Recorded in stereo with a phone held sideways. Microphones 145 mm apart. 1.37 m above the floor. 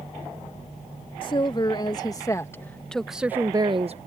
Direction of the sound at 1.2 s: 35° left (ahead or behind).